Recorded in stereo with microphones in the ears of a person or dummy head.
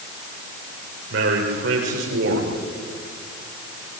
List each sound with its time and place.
1.1 s a man speaking: 70° right (ahead or behind), 7 m; by 4.0 s 55° right (ahead or behind), 5.5 m